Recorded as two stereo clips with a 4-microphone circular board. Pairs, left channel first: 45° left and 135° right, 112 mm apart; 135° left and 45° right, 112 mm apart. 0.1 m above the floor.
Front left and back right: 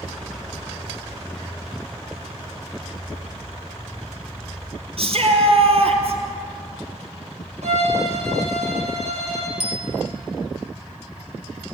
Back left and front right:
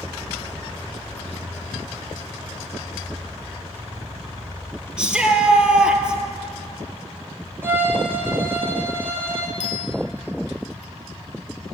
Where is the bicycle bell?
35° left, 2.5 m.